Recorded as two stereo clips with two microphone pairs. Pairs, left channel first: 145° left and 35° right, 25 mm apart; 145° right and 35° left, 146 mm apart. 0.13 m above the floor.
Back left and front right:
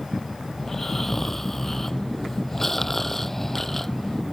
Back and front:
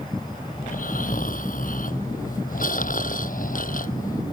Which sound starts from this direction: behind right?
Snoring, at 0.6 s.